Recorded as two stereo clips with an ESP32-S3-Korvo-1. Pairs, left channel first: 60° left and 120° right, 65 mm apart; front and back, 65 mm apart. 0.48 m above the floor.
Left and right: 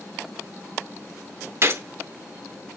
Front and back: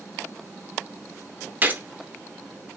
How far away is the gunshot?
About 0.8 m.